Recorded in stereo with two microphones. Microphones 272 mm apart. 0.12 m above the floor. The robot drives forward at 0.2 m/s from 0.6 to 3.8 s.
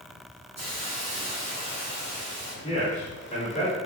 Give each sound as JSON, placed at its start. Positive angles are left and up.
{"t": 0.6, "sound": "a hiss", "side_deg": -75, "distance_m": 1.8}
{"t": 2.6, "sound": "a man speaking", "side_deg": 25, "distance_m": 1.3}